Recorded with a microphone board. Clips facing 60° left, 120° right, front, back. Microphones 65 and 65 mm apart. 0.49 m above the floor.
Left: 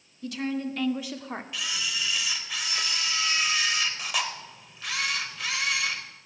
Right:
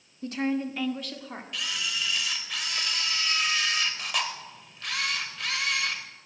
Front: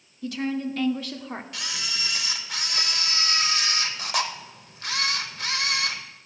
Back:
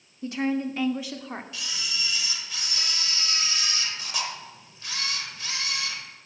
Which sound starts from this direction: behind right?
A woman speaking, at 0.2 s.